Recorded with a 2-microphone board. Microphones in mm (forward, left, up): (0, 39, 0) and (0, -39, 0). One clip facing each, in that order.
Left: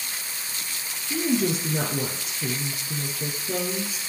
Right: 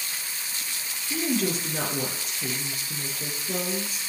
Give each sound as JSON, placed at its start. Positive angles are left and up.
{"t": 1.1, "sound": "a woman speaking", "side_deg": 5, "distance_m": 3.0}